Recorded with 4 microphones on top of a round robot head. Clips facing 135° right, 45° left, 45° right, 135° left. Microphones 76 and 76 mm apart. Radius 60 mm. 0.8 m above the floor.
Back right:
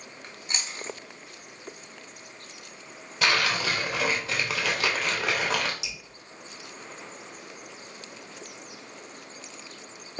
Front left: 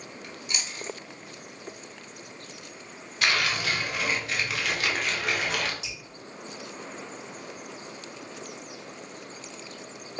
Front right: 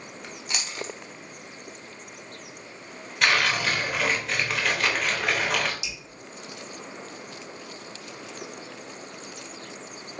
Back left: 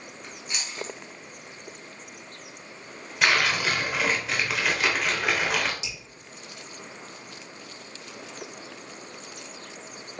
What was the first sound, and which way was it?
Chewing, 75° right.